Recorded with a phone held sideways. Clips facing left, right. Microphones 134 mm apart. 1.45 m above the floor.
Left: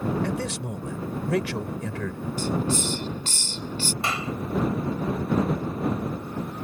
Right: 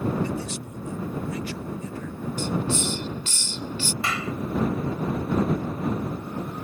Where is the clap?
25° left (ahead or behind).